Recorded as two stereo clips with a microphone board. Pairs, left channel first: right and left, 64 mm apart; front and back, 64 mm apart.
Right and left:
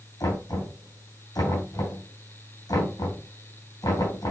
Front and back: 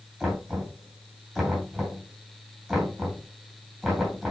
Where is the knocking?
105° right, 4.5 m.